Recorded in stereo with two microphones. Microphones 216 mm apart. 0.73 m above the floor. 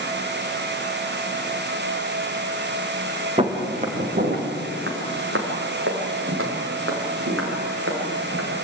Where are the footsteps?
25° right (ahead or behind), 4 m; by 8.5 s 85° right, 8.5 m.